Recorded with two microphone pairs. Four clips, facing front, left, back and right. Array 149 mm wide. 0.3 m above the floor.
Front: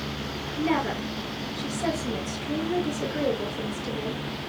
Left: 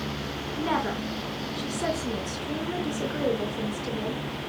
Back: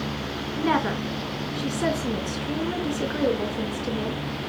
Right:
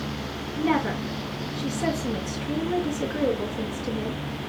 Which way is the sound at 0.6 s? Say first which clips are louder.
Right 4 dB, back 2 dB; 165° left.